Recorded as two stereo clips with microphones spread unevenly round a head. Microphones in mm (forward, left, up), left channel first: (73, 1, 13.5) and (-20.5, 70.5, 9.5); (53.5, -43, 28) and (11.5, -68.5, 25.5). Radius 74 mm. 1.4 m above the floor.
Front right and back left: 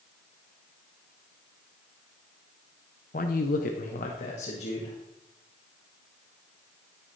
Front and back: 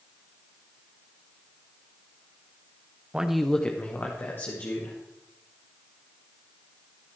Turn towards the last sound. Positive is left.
turn(degrees=-5)